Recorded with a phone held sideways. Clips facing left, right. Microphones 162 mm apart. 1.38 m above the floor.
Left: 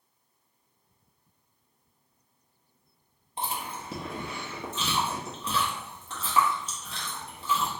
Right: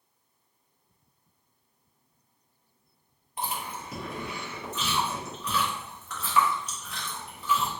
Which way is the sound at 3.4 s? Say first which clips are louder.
Even; 30° left (ahead or behind).